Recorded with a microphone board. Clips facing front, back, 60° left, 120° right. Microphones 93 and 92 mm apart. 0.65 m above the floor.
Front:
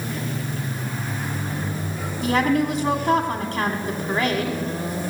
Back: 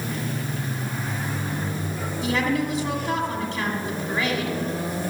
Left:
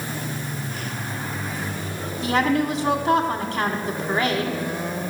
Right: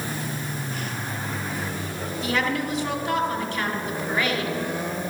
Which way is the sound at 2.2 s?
10° left.